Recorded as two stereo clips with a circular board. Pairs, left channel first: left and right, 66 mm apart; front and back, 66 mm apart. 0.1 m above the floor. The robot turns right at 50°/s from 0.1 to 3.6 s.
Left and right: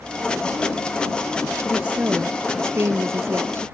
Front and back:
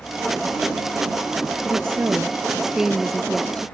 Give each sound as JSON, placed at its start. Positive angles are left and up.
{"t": 1.6, "sound": "a woman speaking", "azimuth_deg": -160}